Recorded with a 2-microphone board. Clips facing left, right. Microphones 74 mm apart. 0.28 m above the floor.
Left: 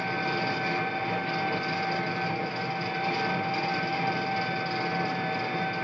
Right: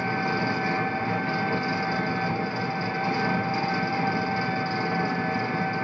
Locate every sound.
0.0 s an engine running: 20° right (ahead or behind), 1.2 m